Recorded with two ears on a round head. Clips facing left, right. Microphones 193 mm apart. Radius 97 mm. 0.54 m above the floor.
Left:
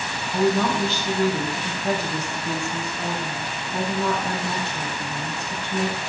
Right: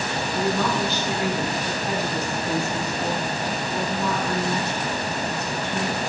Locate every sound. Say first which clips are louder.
0.3 s a woman speaking: left 4 dB; 30° left (ahead or behind), 4.5 m